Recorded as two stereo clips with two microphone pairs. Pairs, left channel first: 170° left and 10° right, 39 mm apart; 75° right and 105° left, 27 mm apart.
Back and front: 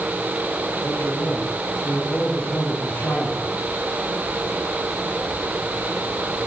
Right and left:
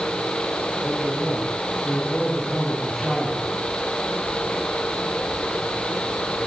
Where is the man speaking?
170° right, 8.5 m; by 3.5 s 155° right, 7 m.